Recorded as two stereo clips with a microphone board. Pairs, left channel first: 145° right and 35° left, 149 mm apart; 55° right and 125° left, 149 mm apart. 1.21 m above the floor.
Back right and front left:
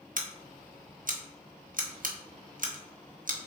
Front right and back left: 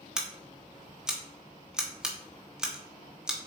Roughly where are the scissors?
Ahead left.